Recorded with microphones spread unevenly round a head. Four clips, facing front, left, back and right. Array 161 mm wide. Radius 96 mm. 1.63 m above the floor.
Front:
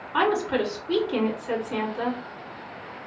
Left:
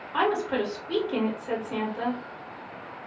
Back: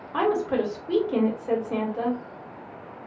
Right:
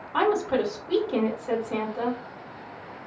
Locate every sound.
0.1 s a woman speaking: 160° right, 1.5 m